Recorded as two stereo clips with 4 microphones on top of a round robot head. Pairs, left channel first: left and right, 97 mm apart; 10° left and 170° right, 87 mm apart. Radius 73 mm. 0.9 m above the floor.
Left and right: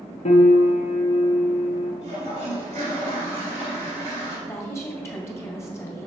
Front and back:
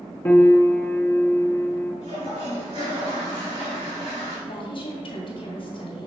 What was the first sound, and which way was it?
A piano, 80° left.